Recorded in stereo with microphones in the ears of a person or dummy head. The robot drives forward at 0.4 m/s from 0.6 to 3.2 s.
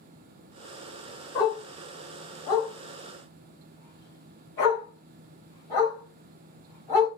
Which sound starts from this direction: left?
A dog barking, at 1.4 s.